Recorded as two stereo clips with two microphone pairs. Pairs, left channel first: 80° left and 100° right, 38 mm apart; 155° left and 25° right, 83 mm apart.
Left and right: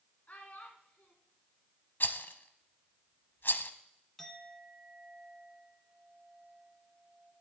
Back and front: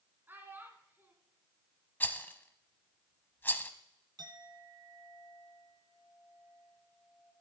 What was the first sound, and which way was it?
A child speaking, 40° left.